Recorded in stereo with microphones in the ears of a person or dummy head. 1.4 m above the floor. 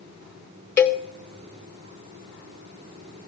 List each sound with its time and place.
0.8 s a cowbell: 10° left (ahead or behind), 0.5 m